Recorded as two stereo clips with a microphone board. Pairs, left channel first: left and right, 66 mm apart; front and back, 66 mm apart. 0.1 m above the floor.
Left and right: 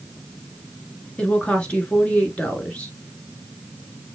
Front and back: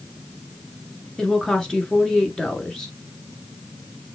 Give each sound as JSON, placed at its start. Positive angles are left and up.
{"t": 1.2, "sound": "a woman speaking", "azimuth_deg": 65, "distance_m": 1.1}